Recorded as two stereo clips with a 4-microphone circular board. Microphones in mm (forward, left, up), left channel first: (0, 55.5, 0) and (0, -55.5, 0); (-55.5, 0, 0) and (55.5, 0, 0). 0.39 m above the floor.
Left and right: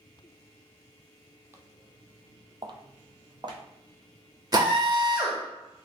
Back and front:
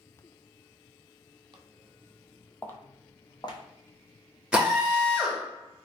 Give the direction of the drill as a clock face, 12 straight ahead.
3 o'clock.